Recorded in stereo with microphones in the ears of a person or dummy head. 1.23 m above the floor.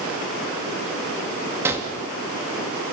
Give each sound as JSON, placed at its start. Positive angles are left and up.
{"t": 1.6, "sound": "a gunshot", "side_deg": -15, "distance_m": 2.5}